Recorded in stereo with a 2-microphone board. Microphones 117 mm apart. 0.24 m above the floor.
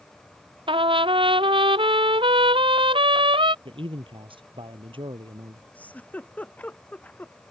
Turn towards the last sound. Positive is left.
turn(degrees=15)  # may be behind; listen again after turning